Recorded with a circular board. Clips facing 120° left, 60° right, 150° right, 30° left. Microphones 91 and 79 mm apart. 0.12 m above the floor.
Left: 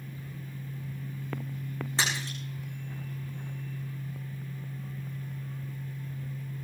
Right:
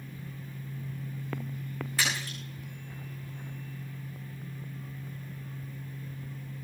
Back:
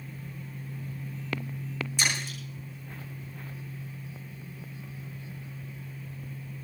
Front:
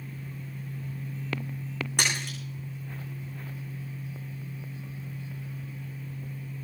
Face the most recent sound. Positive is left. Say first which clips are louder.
# left 1 dB, front 1 dB
turn(degrees=55)